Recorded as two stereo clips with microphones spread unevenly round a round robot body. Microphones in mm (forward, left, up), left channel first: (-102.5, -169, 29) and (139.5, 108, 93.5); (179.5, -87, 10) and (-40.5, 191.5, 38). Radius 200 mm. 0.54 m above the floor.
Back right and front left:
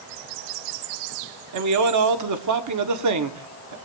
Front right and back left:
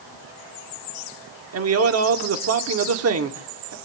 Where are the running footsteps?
No running footsteps in this recording.